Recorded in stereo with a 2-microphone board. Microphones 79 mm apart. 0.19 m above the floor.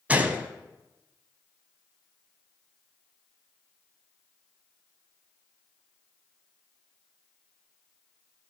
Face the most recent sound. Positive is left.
turn(degrees=-20)  # may be behind; listen again after turning